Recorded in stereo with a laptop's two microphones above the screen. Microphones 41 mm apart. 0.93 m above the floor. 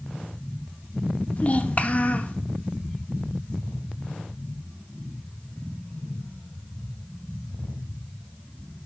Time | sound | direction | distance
1.4 | a child speaking | 35° left (ahead or behind) | 1.0 m